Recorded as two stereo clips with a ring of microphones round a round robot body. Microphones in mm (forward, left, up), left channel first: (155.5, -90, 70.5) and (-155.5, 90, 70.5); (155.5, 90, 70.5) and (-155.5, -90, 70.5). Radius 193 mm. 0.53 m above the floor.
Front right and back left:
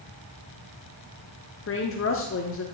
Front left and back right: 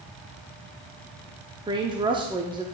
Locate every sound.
1.7 s a woman speaking: 75° right, 0.9 m